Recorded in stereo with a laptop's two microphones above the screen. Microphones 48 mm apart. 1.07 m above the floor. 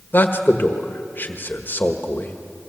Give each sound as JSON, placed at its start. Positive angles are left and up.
{"t": 0.1, "sound": "a man speaking", "side_deg": 40, "distance_m": 1.4}